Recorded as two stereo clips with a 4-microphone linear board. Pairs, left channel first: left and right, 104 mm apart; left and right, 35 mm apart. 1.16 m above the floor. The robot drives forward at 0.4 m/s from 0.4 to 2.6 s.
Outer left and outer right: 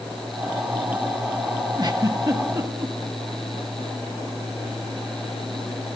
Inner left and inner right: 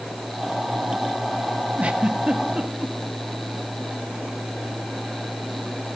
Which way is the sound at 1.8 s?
45° right (ahead or behind).